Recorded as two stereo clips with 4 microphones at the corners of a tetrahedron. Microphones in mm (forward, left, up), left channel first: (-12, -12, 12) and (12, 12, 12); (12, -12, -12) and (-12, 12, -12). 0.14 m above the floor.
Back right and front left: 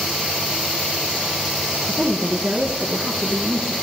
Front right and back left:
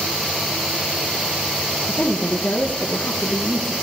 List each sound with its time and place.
1.9 s a woman speaking: 5° right, 2 m